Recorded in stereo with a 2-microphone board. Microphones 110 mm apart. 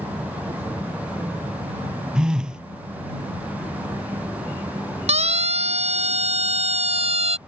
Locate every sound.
2.1 s a phone buzzing: 5° right (ahead or behind)
5.1 s a siren: 75° right (ahead or behind); by 7.4 s 65° right (ahead or behind)